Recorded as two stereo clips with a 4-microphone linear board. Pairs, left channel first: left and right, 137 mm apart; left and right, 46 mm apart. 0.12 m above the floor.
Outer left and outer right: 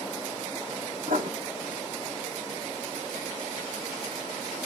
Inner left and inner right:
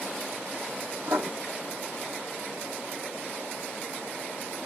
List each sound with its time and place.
1.1 s writing: 85° right, 1.1 m